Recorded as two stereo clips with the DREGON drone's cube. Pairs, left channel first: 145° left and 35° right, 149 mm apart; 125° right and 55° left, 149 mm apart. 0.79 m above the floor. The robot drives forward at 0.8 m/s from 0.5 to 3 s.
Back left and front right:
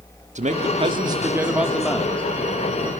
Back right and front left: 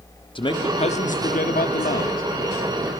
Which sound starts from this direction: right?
A man speaking, at 0.3 s.